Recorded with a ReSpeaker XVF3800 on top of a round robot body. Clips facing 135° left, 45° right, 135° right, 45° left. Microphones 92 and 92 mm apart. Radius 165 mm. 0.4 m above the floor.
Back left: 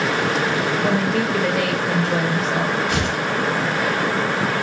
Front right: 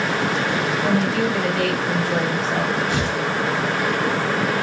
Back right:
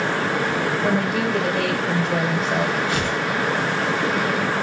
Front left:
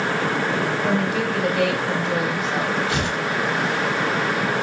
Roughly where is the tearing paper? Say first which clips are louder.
Even, back right 1 dB; behind left.